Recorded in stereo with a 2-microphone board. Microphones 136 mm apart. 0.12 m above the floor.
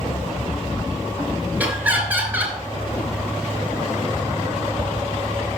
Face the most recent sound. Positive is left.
turn(degrees=-15)  # may be behind; listen again after turning